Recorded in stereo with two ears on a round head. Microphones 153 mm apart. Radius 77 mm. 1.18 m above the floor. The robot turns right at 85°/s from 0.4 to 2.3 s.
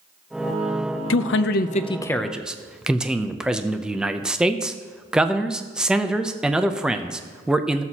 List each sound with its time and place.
1.1 s a man speaking: 85° left, 0.6 m; by 7.8 s 175° right, 0.6 m